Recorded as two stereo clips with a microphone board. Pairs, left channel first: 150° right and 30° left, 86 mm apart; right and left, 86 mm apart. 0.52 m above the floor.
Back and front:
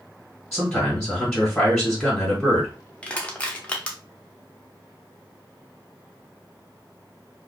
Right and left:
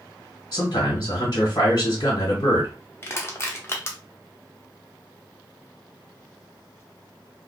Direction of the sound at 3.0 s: 90° right.